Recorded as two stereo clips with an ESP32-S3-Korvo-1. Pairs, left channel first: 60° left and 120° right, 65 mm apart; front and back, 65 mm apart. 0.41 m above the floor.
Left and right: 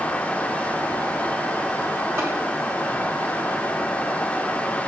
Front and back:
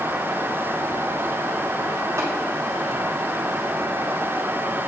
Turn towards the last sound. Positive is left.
turn(degrees=-155)